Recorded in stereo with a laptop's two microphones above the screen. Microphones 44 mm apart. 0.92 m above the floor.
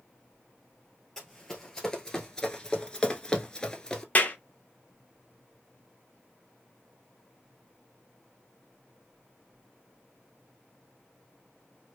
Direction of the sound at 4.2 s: 35° left (ahead or behind).